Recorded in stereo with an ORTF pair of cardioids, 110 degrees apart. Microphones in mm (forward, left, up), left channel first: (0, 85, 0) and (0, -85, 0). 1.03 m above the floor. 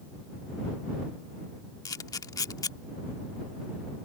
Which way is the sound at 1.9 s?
20° left.